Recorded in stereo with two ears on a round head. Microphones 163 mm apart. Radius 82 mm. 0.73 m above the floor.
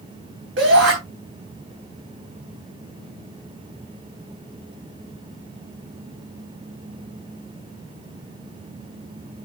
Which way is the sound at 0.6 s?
75° right (ahead or behind).